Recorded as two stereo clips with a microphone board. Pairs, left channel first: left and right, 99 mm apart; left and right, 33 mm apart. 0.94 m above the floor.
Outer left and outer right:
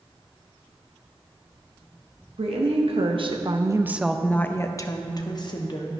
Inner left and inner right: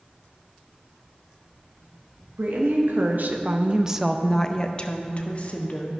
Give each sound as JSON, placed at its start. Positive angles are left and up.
{"t": 2.4, "sound": "a woman speaking", "side_deg": -75, "distance_m": 1.1}